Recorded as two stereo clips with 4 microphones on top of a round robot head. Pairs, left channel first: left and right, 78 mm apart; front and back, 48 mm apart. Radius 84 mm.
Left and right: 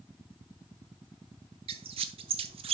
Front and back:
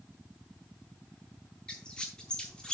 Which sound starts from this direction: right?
A squeak, at 1.7 s.